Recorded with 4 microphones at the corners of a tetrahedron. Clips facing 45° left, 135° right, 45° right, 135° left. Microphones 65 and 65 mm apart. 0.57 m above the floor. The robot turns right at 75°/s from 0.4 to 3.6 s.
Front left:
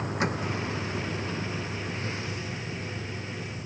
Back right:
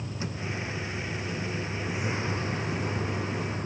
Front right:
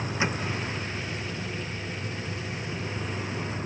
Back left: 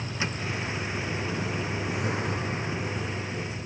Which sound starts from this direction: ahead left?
A vehicle, at 0.0 s.